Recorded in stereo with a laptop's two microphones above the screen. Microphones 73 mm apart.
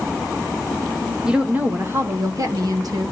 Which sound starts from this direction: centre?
A woman speaking, at 1.2 s.